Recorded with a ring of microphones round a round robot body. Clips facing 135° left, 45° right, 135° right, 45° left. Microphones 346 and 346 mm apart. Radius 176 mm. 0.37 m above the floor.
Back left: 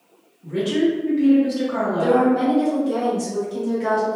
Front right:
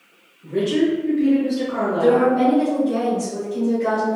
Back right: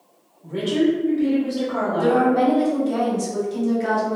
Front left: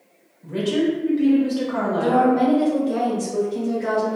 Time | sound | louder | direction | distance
0.4 | a woman speaking | front right 1 dB, back right 1 dB | 65° left | 1.1 m
2.0 | a woman speaking | front right 2 dB, even | 165° right | 1.1 m